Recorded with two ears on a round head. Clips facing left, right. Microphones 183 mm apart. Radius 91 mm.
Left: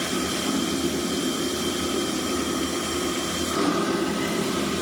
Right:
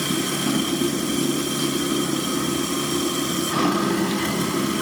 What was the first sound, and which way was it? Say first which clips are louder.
Running water: right 2 dB; 75° right (ahead or behind).